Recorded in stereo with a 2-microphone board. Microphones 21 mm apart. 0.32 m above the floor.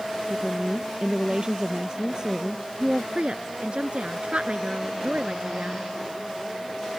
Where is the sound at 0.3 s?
40° right (ahead or behind).